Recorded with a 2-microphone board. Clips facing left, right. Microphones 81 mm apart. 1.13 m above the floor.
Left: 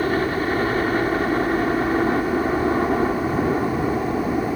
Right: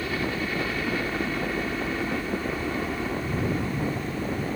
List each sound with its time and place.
0.0 s a helicopter: 45° left (ahead or behind)